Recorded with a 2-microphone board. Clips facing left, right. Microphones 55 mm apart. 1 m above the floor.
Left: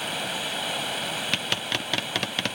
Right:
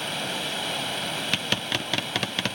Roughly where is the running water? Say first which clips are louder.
Even; centre.